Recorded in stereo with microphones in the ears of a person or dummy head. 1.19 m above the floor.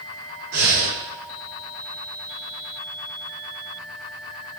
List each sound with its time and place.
0.5 s breathing: 85° right, 7 m